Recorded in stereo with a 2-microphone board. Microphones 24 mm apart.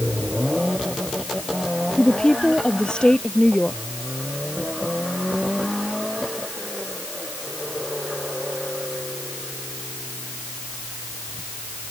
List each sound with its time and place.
2.0 s a woman speaking: 30° left (ahead or behind); by 3.8 s 35° left (ahead or behind)